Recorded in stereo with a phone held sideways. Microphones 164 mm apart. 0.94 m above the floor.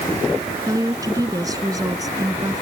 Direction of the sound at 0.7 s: 20° right (ahead or behind).